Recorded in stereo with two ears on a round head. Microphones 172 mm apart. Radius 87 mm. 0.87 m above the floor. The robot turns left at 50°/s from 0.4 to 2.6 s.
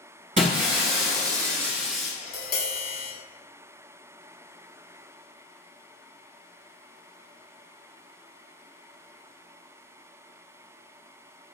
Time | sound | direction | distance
0.4 | breaking glass | 100° right | 1.0 m
2.2 | tapping | 30° left (ahead or behind) | 1.0 m